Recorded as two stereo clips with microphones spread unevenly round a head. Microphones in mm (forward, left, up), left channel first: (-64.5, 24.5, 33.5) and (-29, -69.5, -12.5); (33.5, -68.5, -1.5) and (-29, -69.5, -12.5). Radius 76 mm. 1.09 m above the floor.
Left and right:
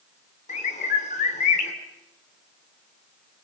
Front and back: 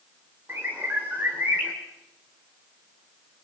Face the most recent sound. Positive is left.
turn(degrees=100)